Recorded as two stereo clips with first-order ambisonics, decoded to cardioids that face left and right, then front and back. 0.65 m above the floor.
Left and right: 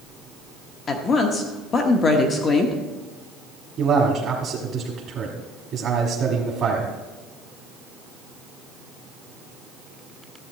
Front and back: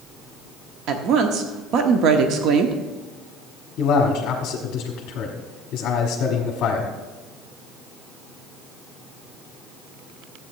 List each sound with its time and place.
0.9 s a woman speaking: 150° left, 1.0 m
3.8 s a man speaking: 40° right, 1.4 m